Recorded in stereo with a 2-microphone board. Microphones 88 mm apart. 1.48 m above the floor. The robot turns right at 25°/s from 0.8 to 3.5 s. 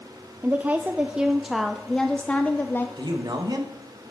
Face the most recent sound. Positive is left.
turn(degrees=-50)  # may be behind; listen again after turning